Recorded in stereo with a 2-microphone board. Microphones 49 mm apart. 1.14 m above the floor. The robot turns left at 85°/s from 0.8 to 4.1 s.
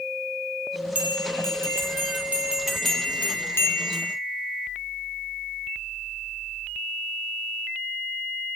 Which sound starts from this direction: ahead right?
A bell, at 0.9 s.